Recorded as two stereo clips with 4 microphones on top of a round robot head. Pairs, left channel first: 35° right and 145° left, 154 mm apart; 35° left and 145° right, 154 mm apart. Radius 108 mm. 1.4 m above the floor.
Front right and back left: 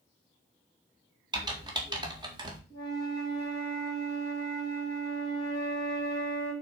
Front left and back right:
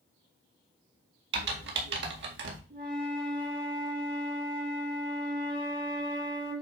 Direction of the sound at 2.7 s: 170° right.